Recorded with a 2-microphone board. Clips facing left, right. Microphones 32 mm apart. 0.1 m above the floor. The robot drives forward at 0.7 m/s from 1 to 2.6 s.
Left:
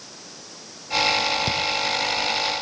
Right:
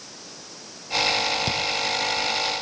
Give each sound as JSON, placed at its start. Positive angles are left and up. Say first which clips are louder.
{"t": 1.5, "sound": "chewing", "louder": "left 1 dB", "side_deg": 0, "distance_m": 1.3}